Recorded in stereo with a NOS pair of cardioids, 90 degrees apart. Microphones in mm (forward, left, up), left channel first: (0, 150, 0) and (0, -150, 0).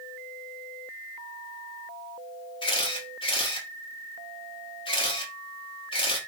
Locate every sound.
2.6 s a camera shutter: 15° left, 0.9 m